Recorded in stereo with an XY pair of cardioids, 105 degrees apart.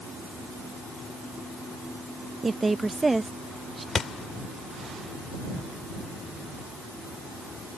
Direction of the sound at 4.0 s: 45° left.